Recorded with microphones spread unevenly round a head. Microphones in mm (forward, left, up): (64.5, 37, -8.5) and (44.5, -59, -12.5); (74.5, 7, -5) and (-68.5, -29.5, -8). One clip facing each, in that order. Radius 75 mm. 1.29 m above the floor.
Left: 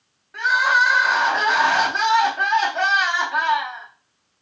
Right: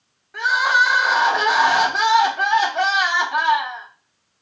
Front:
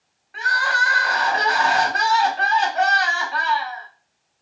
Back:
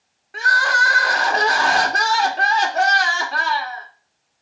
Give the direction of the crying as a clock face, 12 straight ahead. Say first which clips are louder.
Even, back 3 dB; 6 o'clock.